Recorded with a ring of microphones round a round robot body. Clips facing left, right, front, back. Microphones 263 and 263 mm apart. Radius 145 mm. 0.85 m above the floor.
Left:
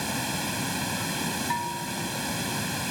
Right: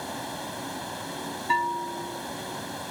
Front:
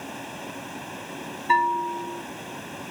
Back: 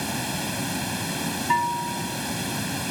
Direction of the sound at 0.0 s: 135° left.